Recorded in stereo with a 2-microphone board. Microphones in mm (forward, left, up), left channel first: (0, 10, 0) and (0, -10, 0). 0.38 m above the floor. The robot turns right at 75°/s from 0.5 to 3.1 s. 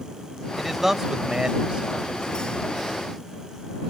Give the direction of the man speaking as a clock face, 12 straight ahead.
6 o'clock.